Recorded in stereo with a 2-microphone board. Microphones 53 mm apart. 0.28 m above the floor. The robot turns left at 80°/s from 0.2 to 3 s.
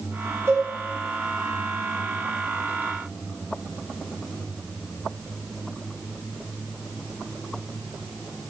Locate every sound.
0.5 s a cowbell: 60° right (ahead or behind), 2.5 m; by 0.7 s 75° right (ahead or behind), 2.5 m